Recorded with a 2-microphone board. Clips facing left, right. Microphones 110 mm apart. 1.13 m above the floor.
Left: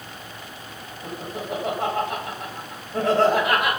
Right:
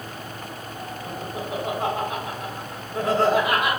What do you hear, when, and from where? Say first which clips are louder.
1.0 s laughter: left 2 dB; 75° left (ahead or behind), 2 m